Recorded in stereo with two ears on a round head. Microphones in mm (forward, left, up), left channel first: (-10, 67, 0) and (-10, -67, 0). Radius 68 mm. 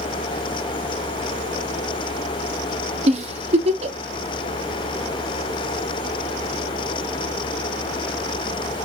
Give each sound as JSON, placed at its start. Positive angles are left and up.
{"t": 3.1, "sound": "a giggle", "side_deg": -40, "distance_m": 0.5}